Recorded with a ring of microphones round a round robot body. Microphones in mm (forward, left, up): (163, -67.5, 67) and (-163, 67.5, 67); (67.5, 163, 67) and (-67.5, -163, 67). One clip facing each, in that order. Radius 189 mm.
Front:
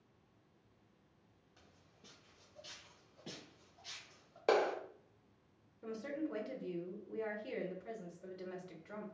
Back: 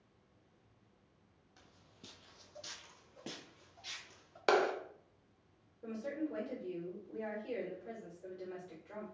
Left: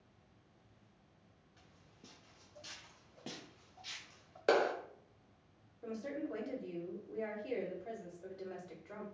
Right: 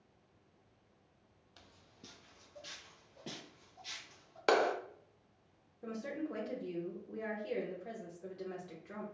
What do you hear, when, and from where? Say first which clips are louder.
1.6 s footsteps: back 6 dB, right 3 dB; 125° right, 0.5 m; by 4.4 s 120° left, 2 m
4.5 s a clap: back 1 dB, even; 175° right, 0.7 m
5.8 s a woman speaking: back 1 dB, right 1 dB; 30° right, 1.0 m